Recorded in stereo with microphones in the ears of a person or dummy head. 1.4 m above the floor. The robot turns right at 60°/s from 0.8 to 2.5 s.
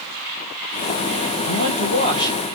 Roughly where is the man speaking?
Behind left.